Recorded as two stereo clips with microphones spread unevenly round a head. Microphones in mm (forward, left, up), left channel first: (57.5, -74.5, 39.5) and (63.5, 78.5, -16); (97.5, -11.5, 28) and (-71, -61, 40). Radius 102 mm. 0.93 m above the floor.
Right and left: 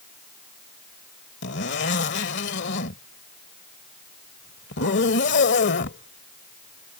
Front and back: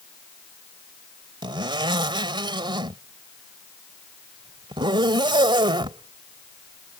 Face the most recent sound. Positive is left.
turn(degrees=-100)